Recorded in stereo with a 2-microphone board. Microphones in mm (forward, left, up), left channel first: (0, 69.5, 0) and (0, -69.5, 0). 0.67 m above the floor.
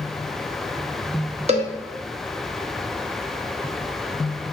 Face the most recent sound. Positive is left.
turn(degrees=-50)  # may be behind; listen again after turning